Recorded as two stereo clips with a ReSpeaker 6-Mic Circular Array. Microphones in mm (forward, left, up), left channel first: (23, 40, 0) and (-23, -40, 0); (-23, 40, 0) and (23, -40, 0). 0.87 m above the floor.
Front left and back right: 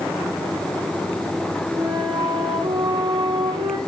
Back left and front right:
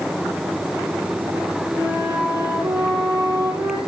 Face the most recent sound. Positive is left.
turn(degrees=-120)